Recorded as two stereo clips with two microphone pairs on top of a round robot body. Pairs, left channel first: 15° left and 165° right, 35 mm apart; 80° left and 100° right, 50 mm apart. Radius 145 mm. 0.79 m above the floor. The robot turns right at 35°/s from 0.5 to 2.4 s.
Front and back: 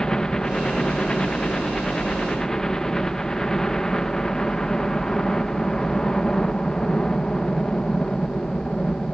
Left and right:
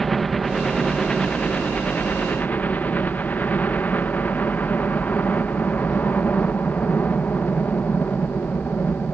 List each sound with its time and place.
0.0 s a helicopter: 10° right; by 9.2 s 60° left